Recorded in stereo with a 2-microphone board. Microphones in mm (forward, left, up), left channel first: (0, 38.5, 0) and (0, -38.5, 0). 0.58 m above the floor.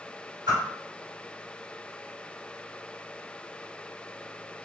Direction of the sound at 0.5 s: 50° right (ahead or behind).